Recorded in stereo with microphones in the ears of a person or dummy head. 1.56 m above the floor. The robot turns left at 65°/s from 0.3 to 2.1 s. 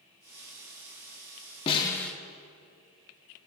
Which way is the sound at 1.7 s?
30° left (ahead or behind).